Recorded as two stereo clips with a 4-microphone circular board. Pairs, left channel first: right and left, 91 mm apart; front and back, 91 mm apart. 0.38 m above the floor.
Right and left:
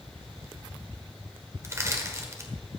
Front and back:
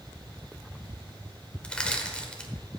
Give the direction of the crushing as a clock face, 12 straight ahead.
10 o'clock.